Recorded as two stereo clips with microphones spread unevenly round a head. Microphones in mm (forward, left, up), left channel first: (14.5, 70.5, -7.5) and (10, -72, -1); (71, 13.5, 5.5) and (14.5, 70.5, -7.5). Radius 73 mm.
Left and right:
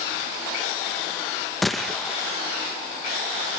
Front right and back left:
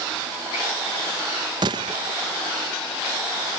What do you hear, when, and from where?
1.6 s a gunshot: 175° left, 1.0 m